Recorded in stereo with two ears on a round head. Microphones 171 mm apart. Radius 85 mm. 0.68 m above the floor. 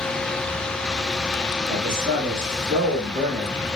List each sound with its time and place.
1.7 s a man speaking: 45° right (ahead or behind), 1.6 m; by 3.6 s 25° right (ahead or behind), 1.4 m